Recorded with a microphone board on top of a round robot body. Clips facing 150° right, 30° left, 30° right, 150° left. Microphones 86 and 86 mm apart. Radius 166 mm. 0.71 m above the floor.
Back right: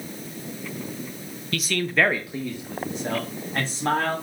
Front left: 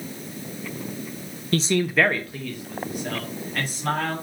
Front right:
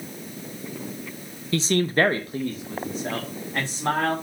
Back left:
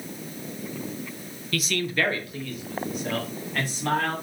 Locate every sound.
1.5 s a man speaking: 20° left, 0.8 m; by 4.1 s 95° right, 3 m